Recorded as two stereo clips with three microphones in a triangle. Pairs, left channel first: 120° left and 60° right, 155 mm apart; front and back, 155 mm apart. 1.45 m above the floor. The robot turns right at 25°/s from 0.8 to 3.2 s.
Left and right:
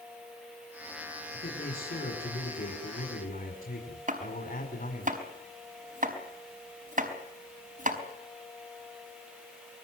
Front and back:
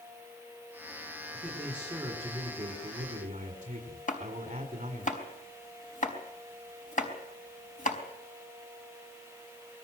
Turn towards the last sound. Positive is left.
turn(degrees=-30)